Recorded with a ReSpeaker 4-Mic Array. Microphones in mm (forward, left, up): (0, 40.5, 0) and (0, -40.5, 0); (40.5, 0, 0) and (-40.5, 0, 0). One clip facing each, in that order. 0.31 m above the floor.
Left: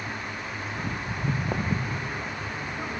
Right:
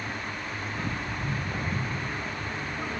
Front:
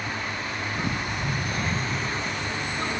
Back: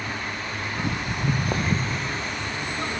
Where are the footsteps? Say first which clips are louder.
Left 3 dB, back 3 dB; 140° left, 0.8 m; by 2.1 s 120° left, 1.9 m.